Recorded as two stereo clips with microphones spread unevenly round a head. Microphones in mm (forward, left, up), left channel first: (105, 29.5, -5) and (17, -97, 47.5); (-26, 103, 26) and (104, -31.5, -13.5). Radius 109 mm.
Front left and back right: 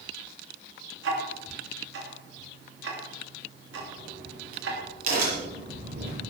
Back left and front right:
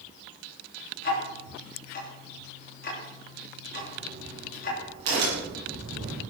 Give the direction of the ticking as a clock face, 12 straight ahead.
6 o'clock.